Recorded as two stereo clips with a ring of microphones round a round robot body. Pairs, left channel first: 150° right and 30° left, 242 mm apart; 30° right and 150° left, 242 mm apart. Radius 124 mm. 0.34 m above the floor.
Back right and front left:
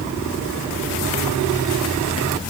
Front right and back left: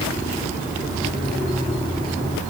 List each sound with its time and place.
Only background noise.